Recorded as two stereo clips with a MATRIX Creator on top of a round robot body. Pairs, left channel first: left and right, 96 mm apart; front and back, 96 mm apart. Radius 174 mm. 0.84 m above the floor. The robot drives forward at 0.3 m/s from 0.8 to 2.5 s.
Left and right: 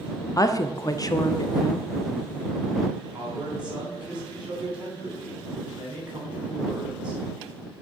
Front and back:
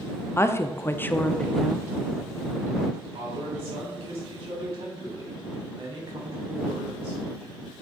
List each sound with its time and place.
0.4 s a woman speaking: 50° left, 0.7 m; by 1.9 s 95° left, 0.7 m
3.1 s a man speaking: 170° right, 3 m